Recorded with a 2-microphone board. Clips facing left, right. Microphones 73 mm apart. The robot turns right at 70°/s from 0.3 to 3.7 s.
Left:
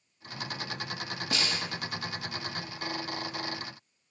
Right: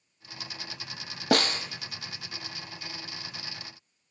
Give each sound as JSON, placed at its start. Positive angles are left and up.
{"t": 1.3, "sound": "a snare drum", "side_deg": -60, "distance_m": 1.0}